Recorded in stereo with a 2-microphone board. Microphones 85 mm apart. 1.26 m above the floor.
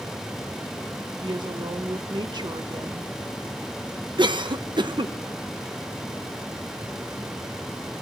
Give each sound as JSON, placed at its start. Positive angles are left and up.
{"t": 1.2, "sound": "a woman speaking", "side_deg": -55, "distance_m": 1.3}
{"t": 4.2, "sound": "a cough", "side_deg": -60, "distance_m": 0.9}